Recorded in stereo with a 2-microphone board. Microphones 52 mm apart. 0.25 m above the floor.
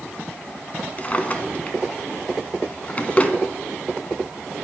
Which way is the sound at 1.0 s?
30° left (ahead or behind).